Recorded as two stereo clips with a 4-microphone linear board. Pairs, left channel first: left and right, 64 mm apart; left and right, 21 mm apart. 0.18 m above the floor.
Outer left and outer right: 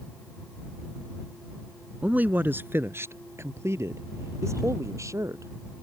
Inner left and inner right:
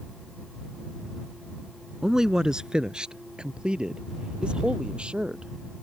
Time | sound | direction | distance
2.0 | a man speaking | 25° right (ahead or behind) | ?